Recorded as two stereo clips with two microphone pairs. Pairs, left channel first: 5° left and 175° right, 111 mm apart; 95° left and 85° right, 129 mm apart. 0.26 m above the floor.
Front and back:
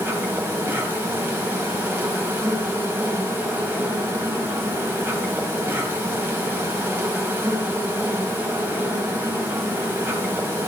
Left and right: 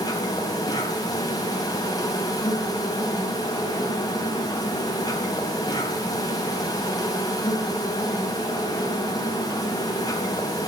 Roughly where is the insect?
Behind left.